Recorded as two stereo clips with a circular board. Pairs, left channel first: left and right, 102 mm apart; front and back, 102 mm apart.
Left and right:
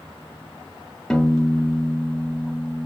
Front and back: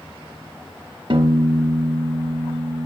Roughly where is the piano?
Behind.